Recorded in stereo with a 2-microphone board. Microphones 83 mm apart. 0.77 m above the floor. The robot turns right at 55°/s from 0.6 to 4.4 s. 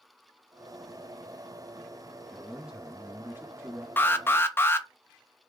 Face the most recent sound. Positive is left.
turn(degrees=30)  # may be behind; listen again after turning